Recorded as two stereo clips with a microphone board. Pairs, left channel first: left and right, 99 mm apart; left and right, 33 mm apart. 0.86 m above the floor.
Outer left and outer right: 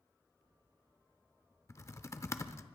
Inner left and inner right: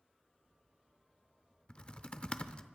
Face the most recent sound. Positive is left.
turn(degrees=30)  # may be behind; listen again after turning